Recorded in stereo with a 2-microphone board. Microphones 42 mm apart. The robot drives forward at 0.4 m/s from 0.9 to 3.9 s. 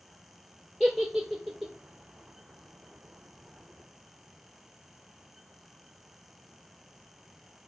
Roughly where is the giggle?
Centre.